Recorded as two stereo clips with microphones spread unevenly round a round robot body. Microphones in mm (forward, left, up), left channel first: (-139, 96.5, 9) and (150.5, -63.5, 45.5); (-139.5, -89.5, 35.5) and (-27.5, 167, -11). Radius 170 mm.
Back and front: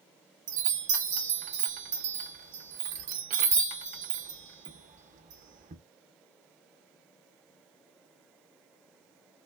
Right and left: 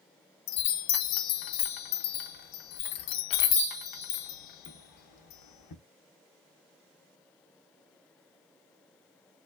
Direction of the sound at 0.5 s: 100° right.